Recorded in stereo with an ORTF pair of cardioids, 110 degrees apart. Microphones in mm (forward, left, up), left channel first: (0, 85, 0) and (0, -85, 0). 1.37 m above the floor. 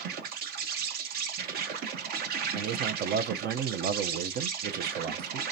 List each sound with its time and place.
0.0 s an insect: 65° right, 0.9 m
2.5 s a man speaking: 65° right, 0.7 m